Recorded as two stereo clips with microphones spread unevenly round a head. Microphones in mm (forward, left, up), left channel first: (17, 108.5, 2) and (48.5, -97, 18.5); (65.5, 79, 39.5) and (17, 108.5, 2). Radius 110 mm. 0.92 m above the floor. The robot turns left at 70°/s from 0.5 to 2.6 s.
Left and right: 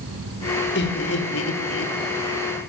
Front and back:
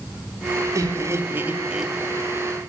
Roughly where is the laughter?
Behind left.